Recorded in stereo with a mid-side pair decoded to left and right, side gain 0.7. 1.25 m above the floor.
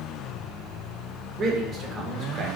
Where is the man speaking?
40° right, 0.7 m.